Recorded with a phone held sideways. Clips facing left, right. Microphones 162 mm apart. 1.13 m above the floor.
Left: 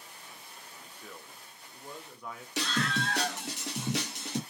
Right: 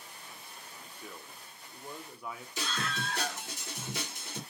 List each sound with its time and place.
1.0 s a man speaking: 5° right (ahead or behind), 0.8 m
2.6 s a scream: 75° left (ahead or behind), 1.5 m